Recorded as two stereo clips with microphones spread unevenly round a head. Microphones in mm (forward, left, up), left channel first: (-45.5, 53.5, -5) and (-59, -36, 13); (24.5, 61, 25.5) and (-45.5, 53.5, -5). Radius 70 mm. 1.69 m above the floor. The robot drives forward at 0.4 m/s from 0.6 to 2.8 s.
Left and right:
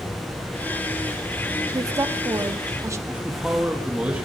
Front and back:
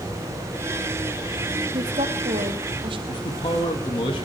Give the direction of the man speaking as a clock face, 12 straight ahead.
1 o'clock.